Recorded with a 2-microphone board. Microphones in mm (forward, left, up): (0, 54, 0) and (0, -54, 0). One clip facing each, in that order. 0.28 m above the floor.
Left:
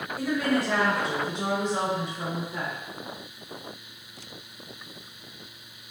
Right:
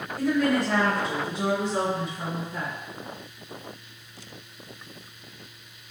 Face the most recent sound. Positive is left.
turn(degrees=-10)  # may be behind; listen again after turning